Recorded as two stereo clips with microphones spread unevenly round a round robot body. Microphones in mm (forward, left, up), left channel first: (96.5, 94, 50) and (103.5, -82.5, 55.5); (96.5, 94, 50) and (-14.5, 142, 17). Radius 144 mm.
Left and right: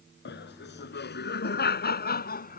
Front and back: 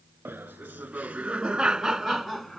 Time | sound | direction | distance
0.2 | laughter | 85° left | ?